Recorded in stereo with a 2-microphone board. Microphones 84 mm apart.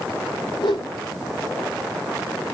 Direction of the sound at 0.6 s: 85° left.